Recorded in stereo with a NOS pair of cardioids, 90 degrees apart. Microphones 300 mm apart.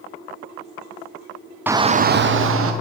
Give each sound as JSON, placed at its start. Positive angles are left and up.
{"t": 1.7, "sound": "a shout", "azimuth_deg": -5, "distance_m": 0.6}